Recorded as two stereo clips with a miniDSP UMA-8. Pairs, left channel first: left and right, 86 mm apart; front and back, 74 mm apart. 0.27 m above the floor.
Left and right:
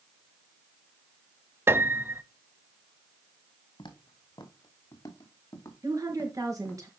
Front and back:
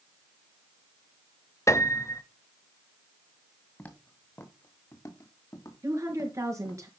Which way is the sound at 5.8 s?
135° right.